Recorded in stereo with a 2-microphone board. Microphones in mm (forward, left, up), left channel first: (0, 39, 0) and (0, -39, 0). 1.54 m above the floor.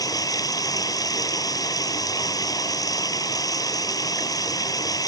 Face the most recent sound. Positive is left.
turn(degrees=50)  # may be behind; listen again after turning